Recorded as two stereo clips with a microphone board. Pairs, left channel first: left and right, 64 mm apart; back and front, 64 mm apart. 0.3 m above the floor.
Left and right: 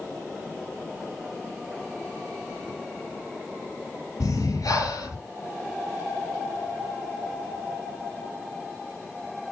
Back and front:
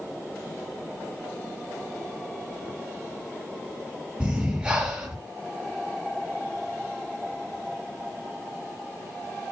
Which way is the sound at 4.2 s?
75° left.